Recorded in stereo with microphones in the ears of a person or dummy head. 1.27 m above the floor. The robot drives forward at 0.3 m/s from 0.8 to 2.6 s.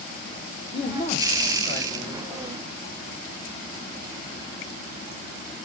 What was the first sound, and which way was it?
A man speaking, 35° left (ahead or behind).